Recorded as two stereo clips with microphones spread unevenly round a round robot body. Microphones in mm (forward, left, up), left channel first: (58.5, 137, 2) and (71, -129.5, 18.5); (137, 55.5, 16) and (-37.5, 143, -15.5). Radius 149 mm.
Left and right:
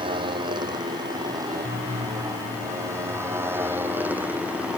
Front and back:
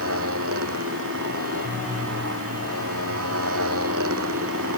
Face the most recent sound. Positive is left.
turn(degrees=-175)